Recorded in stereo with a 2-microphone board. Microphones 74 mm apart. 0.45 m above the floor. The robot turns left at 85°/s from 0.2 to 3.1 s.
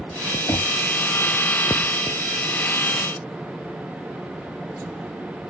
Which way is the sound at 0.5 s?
50° left (ahead or behind).